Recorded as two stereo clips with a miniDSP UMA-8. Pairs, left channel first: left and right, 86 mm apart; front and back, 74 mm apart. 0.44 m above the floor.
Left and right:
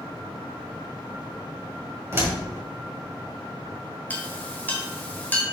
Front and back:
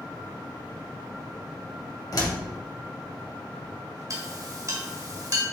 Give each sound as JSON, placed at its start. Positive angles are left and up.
{"t": 2.1, "sound": "a door slam", "azimuth_deg": -30, "distance_m": 1.9}
{"t": 4.1, "sound": "a clink", "azimuth_deg": 155, "distance_m": 1.3}